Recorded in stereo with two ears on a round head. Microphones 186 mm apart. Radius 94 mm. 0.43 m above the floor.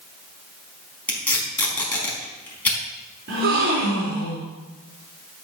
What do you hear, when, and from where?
1.1 s tape being pulled: 10° left (ahead or behind), 4.5 m
3.3 s a gasp: 50° right (ahead or behind), 4.5 m